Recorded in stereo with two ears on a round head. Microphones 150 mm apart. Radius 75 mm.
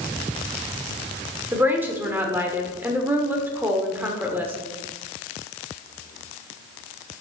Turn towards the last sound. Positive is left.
turn(degrees=-10)  # may be behind; listen again after turning